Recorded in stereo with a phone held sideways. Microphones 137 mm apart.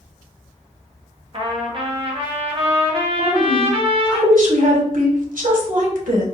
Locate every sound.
1.3 s a trumpet: 45° right (ahead or behind), 0.8 m
3.2 s a woman speaking: 80° right, 1.3 m